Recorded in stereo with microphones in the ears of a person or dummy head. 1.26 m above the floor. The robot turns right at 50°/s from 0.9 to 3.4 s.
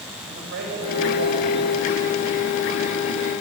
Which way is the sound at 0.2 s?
120° right.